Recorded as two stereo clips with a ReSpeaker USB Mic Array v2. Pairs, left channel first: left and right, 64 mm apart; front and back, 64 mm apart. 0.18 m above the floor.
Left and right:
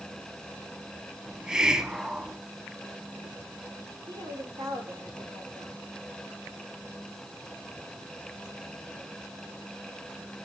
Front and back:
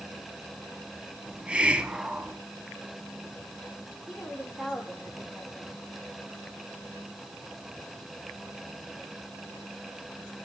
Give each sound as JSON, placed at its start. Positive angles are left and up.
{"t": 1.3, "sound": "a hiss", "azimuth_deg": -145, "distance_m": 1.2}
{"t": 4.1, "sound": "a woman speaking", "azimuth_deg": -95, "distance_m": 9.0}